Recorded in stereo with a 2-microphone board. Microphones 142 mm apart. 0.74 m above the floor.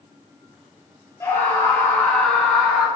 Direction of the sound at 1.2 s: 20° left (ahead or behind).